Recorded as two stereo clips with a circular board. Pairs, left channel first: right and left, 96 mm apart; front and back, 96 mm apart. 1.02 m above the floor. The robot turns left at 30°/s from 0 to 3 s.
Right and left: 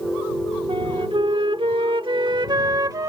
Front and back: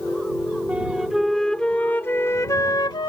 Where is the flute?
105° left; by 3.1 s 40° left.